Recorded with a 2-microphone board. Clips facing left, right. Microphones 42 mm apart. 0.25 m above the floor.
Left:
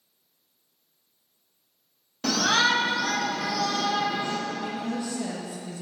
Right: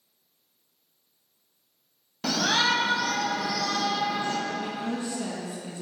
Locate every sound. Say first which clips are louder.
2.2 s a shout: left 2 dB; 10° right (ahead or behind), 1.1 m; by 4.4 s 15° left (ahead or behind), 3.5 m
4.5 s a woman speaking: even; 35° right (ahead or behind), 2.5 m